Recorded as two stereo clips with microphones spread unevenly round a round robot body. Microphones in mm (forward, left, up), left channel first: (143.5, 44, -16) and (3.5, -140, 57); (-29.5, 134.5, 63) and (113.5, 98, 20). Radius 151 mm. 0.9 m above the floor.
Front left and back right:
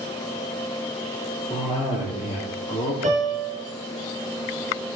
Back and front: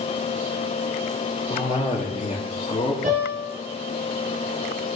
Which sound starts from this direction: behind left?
A cough, at 1.5 s.